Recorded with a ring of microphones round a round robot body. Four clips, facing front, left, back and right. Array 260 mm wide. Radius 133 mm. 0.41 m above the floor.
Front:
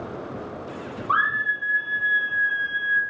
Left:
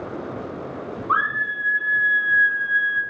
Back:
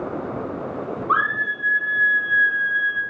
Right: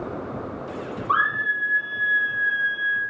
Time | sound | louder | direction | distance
1.1 | a scream | even, back 1 dB | 45° right | 5 m